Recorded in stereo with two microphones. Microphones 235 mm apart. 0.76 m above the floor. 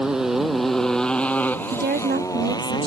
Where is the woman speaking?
45° right (ahead or behind).